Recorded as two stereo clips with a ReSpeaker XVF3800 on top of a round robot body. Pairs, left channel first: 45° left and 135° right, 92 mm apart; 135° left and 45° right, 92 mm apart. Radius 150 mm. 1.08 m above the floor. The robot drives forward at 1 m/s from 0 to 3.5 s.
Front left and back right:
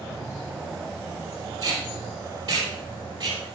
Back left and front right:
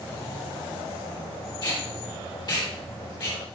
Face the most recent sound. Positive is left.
turn(degrees=180)